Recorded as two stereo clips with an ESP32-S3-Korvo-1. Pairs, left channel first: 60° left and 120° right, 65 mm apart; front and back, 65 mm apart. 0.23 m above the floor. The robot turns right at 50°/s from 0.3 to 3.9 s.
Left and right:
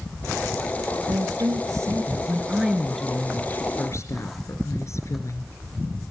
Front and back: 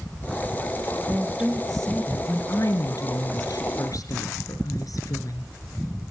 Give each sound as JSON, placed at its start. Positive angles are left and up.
{"t": 1.1, "sound": "a woman speaking", "azimuth_deg": -120, "distance_m": 2.5}